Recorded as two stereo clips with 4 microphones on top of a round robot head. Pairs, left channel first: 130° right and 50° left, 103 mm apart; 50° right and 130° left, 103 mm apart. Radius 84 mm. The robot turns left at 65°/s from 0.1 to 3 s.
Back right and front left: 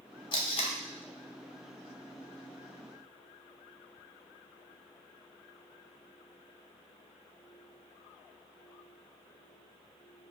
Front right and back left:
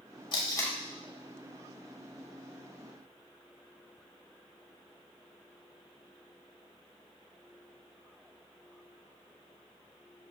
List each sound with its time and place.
0.3 s tape being pulled: 90° right, 0.7 m; by 0.8 s 120° right, 0.7 m